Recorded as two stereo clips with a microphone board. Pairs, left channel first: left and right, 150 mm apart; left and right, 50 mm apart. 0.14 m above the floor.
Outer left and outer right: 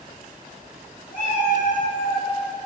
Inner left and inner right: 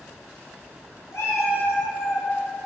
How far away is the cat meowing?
About 0.9 m.